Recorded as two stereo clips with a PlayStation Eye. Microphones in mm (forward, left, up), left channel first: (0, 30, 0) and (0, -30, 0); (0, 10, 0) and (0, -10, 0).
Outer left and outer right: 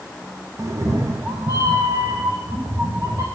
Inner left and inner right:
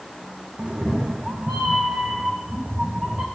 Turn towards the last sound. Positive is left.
turn(degrees=-55)  # may be behind; listen again after turning